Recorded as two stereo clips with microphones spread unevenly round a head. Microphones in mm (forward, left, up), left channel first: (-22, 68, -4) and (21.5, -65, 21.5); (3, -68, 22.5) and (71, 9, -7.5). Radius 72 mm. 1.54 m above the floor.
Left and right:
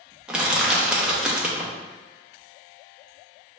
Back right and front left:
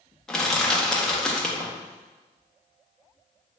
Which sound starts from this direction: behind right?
Crushing, at 0.3 s.